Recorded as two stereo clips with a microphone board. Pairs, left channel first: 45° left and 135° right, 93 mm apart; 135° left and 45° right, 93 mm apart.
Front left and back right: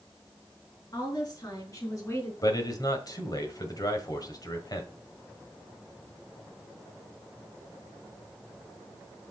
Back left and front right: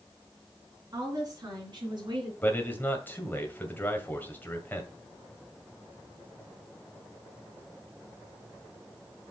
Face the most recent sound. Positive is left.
turn(degrees=70)